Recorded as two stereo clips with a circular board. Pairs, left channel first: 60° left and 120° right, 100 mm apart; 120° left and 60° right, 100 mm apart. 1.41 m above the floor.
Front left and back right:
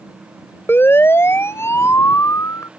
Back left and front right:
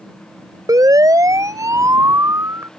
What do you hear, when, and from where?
0.7 s a siren: 5° right; by 2.7 s 5° left